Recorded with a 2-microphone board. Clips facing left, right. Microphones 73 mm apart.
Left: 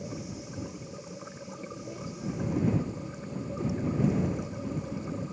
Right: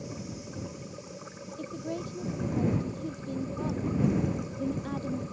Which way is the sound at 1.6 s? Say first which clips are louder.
Right 6 dB; 65° right (ahead or behind).